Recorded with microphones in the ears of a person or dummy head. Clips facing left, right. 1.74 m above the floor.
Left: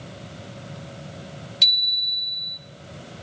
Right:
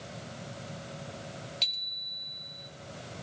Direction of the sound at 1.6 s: 15° left (ahead or behind).